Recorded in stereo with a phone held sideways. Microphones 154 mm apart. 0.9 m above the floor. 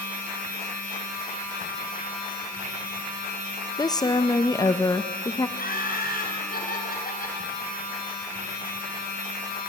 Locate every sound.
0.0 s a machine running: 80° left, 8 m
3.8 s a woman speaking: 25° left (ahead or behind), 0.6 m
5.6 s laughter: 70° left (ahead or behind), 5 m